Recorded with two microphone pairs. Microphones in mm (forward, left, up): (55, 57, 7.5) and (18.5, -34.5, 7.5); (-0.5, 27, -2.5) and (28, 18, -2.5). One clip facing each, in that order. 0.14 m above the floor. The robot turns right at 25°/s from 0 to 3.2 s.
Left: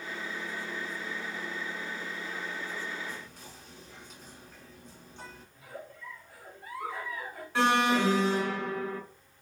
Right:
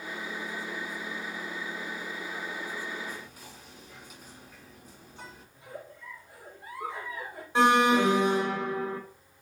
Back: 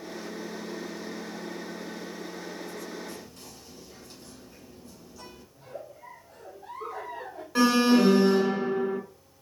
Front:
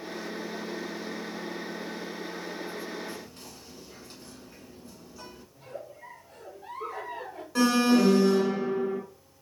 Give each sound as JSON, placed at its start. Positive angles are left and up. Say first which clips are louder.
{"t": 3.1, "sound": "whispering", "louder": "right 1 dB, front 1 dB", "azimuth_deg": -40, "distance_m": 1.5}
{"t": 5.5, "sound": "a giggle", "louder": "right 2 dB, even", "azimuth_deg": -45, "distance_m": 2.5}
{"t": 7.5, "sound": "an alarm", "louder": "right 4 dB, back 1 dB", "azimuth_deg": -160, "distance_m": 0.8}